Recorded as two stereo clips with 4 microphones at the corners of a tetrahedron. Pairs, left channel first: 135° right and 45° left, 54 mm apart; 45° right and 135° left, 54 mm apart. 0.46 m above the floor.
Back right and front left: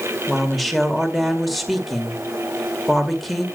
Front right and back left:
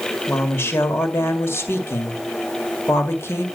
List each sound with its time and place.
0.3 s a woman speaking: 45° right, 1.9 m